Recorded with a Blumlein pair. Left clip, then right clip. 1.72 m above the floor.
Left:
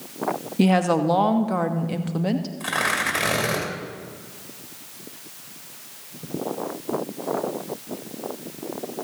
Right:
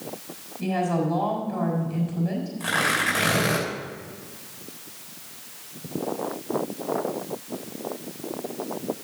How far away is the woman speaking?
About 1.1 m.